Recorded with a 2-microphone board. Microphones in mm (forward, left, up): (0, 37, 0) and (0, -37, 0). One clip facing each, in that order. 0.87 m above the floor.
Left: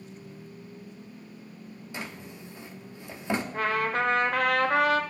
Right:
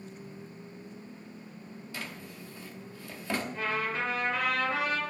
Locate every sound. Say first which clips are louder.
1.9 s a drawer: left 3 dB; 20° left (ahead or behind), 0.6 m
3.5 s a trumpet: left 7 dB; 55° left (ahead or behind), 0.9 m